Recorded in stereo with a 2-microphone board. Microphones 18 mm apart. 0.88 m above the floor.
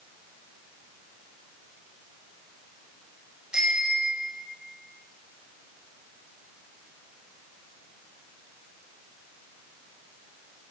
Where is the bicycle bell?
55° right (ahead or behind), 3.5 m; by 4.5 s 50° right (ahead or behind), 4 m.